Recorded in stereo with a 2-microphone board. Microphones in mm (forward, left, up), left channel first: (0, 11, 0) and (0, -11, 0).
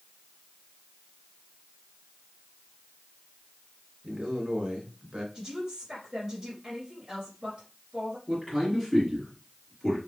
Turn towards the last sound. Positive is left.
turn(degrees=-20)  # may be behind; listen again after turning